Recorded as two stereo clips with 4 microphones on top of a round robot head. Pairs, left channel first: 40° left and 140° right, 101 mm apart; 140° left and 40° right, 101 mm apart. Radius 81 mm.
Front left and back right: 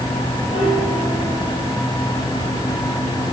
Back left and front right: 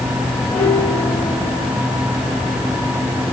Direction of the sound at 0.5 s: 65° left.